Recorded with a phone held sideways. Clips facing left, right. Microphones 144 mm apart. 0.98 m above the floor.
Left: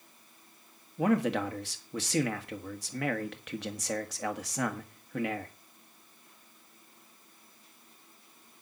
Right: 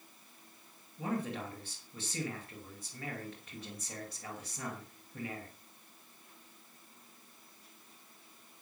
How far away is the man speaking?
About 1.6 m.